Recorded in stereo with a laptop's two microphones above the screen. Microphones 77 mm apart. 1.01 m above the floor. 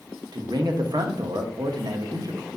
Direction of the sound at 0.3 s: 60° right (ahead or behind).